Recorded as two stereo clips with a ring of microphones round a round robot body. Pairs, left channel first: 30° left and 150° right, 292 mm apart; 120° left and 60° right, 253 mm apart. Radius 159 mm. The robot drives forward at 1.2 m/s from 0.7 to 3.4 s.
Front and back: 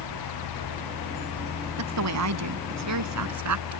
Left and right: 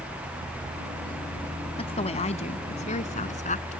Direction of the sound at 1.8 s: 170° right.